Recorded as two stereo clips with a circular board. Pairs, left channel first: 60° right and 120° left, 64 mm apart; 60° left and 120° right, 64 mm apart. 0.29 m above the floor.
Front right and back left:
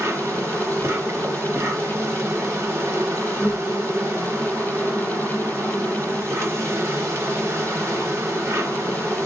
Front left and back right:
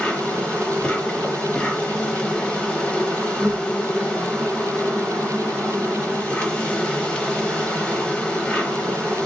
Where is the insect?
125° left, 0.8 m.